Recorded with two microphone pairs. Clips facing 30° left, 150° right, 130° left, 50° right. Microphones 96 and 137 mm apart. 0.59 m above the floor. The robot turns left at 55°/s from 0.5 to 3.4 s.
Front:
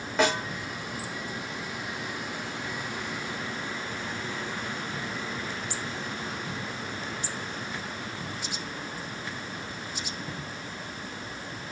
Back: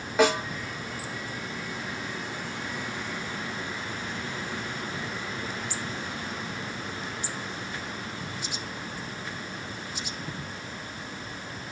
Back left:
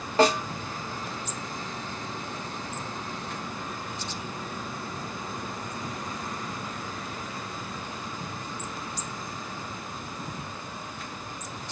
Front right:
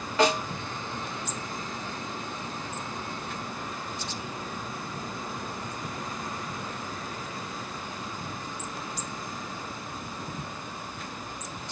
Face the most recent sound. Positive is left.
turn(degrees=-30)